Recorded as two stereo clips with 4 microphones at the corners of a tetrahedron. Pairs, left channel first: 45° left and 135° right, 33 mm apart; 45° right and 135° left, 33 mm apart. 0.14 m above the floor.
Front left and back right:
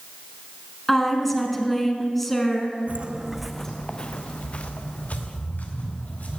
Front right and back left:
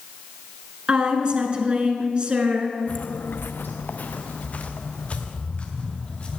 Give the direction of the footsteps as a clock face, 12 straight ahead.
3 o'clock.